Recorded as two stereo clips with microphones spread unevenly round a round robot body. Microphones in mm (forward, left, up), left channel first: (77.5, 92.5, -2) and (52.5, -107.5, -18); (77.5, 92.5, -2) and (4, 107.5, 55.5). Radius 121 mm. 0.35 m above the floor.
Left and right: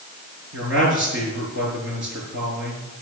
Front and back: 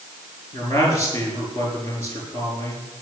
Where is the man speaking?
140° right, 5.5 m.